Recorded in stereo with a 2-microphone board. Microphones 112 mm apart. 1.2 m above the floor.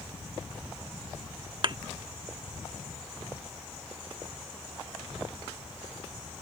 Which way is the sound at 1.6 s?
45° right (ahead or behind).